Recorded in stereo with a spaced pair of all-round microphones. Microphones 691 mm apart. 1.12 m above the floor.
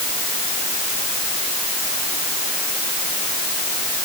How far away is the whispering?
No whispering in this recording.